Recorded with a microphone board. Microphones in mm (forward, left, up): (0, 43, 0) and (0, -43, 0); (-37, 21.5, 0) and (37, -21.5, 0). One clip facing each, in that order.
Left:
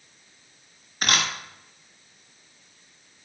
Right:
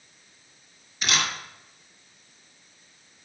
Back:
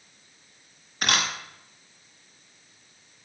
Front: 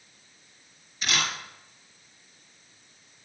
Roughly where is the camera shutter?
Behind left.